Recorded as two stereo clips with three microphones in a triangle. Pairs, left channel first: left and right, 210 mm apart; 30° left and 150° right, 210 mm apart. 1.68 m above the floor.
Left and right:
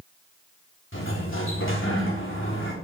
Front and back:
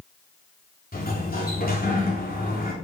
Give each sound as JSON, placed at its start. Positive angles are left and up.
{"t": 0.9, "sound": "a sliding door", "azimuth_deg": 75, "distance_m": 3.5}